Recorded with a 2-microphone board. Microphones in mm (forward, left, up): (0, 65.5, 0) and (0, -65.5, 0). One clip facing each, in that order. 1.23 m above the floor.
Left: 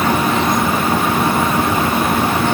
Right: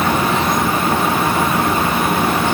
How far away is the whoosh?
No whoosh in this recording.